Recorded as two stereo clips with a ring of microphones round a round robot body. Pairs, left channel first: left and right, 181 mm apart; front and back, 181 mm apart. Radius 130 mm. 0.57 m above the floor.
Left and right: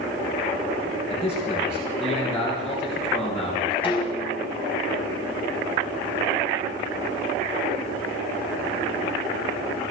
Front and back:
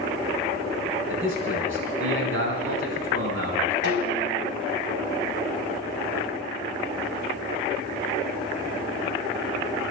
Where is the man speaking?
175° right, 6 m.